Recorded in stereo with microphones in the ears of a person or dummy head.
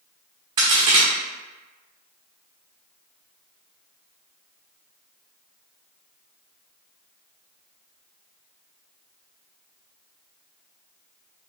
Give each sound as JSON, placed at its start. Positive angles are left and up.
{"t": 0.6, "sound": "a crack", "side_deg": -25, "distance_m": 0.9}